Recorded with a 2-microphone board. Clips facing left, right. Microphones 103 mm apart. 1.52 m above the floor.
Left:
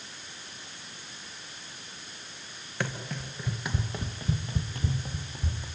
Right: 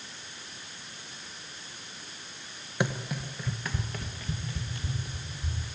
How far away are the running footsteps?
About 1.5 m.